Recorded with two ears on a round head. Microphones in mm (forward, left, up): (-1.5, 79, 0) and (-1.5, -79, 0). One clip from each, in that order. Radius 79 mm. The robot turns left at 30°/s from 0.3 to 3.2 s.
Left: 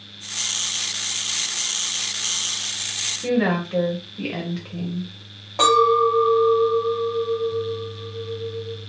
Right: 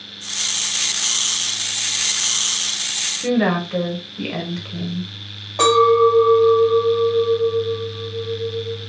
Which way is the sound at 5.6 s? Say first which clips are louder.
Right 3 dB; 5° left (ahead or behind).